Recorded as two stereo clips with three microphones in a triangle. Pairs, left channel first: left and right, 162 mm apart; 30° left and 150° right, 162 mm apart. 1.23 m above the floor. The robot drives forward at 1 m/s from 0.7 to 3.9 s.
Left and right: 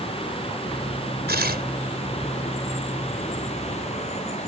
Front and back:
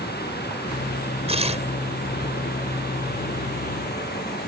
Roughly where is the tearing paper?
Right.